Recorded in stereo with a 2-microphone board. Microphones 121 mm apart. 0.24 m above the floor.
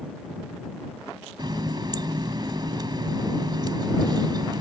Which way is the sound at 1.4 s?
40° right (ahead or behind).